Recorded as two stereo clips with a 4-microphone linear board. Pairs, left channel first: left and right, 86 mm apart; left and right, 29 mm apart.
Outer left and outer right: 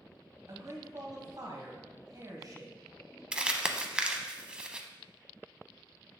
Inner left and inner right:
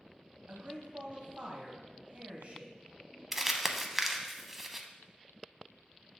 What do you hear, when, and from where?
0.5 s a man speaking: 50° right (ahead or behind), 1.4 m
3.3 s crumpling: 10° right (ahead or behind), 0.5 m